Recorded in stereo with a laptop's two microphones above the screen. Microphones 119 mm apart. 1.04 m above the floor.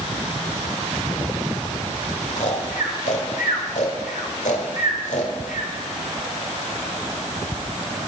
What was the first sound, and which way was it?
Snoring, 70° left (ahead or behind).